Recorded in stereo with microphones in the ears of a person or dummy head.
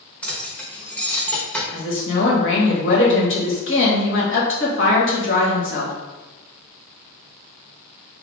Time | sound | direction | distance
0.2 | keys jangling | 10° left (ahead or behind) | 0.8 m
1.7 | a woman speaking | 65° left (ahead or behind) | 1.3 m